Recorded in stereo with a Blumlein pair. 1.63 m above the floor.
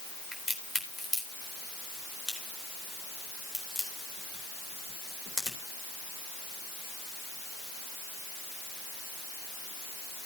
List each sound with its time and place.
0.3 s a crack: 20° left, 4 m